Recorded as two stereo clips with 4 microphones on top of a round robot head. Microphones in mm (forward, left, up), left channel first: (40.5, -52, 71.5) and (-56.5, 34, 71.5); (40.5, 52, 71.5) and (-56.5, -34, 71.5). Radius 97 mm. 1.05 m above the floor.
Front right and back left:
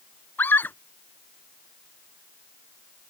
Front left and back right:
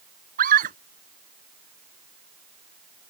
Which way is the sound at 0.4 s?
120° right.